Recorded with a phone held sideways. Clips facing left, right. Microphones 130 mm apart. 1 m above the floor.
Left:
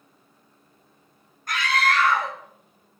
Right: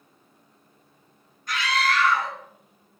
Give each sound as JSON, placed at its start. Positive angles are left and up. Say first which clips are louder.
{"t": 1.5, "sound": "a scream", "louder": "left 1 dB", "side_deg": 50, "distance_m": 1.1}